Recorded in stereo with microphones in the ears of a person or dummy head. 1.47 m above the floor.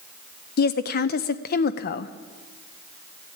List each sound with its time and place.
0.6 s a woman speaking: 55° left (ahead or behind), 0.7 m